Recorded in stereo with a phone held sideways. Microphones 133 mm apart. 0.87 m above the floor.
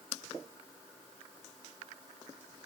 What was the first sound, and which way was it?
Only background noise.